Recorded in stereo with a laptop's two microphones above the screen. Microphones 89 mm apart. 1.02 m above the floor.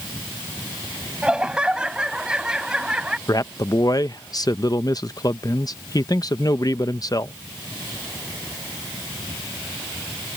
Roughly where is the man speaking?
Left.